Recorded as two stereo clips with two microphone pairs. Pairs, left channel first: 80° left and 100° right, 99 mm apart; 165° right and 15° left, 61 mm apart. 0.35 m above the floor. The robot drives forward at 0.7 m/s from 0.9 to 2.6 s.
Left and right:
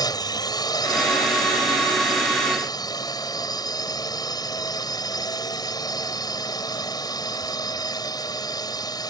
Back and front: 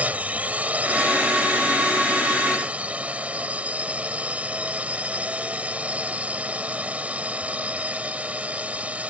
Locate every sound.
0.0 s a drone: 65° left; by 9.1 s 70° left